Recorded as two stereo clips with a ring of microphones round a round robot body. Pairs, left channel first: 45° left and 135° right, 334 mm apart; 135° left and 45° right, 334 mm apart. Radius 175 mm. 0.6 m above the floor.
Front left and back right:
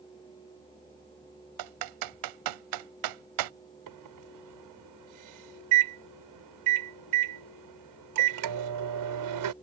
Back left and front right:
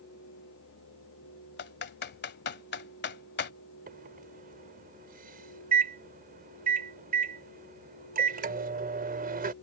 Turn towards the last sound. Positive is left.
turn(degrees=-110)